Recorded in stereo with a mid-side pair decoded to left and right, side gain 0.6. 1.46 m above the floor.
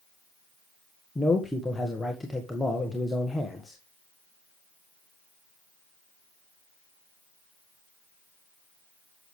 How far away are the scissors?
No scissors in this recording.